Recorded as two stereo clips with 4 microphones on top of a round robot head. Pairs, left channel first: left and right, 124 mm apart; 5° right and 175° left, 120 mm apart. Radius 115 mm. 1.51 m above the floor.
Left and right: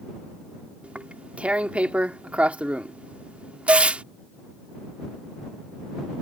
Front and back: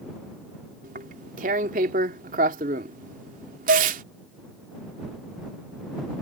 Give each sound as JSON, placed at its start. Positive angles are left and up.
{"t": 0.8, "sound": "tearing paper", "azimuth_deg": -170}
{"t": 3.7, "sound": "dishes clattering", "azimuth_deg": -165}